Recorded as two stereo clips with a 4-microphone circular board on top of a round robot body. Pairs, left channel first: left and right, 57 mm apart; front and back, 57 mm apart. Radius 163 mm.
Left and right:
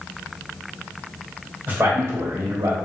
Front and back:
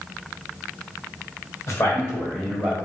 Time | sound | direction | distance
1.7 | a man speaking | 35° right | 1.2 m